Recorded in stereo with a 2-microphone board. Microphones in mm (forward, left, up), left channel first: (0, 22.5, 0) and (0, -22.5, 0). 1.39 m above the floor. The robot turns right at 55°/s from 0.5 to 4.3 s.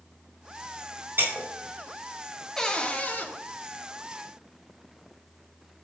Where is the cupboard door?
15° left, 0.8 m; by 3.3 s 55° left, 0.8 m.